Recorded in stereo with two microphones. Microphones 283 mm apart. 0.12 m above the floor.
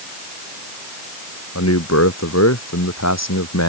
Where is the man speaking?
70° left (ahead or behind); by 3.7 s 75° left (ahead or behind).